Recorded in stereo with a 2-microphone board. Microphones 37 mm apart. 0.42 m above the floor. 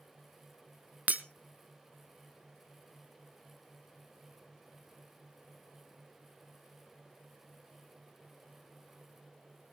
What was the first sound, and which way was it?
Breaking glass, 45° right (ahead or behind).